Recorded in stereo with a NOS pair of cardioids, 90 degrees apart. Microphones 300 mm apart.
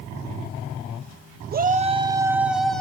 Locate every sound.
1.5 s a shout: 30° right, 1.3 m; by 2.8 s straight ahead, 1.9 m